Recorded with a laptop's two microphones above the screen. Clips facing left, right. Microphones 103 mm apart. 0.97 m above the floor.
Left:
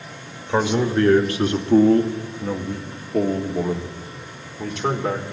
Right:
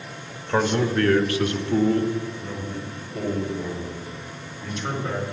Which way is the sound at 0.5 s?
10° left (ahead or behind).